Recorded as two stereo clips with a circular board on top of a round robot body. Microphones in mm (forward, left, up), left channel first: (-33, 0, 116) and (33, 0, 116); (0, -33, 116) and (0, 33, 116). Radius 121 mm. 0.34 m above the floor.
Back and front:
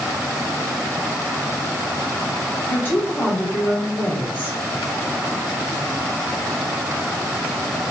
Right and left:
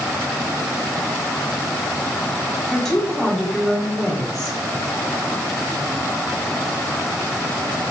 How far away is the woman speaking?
About 0.9 m.